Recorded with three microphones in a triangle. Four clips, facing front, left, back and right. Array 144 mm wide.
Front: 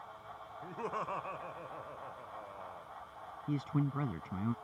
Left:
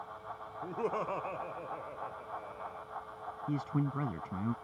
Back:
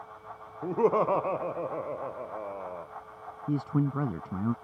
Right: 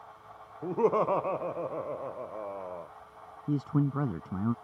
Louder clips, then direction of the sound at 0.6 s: Right 9 dB, back 15 dB; 150° right.